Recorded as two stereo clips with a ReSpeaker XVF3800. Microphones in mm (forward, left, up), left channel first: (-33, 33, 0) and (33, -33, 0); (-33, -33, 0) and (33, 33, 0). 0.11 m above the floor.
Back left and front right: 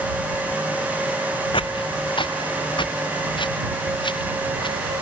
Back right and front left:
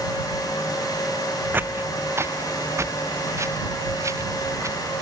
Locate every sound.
1.5 s footsteps: 115° left; by 5.0 s 100° left